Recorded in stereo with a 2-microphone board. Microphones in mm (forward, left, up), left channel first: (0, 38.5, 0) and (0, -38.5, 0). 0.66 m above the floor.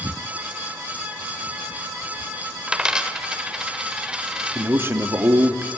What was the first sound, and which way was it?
A dropped coin, 10° right (ahead or behind).